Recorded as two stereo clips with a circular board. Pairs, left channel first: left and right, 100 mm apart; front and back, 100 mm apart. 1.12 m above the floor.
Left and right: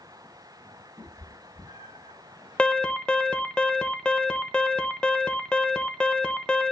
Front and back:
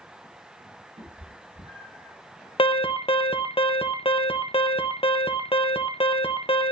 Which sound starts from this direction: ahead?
An alarm, at 2.6 s.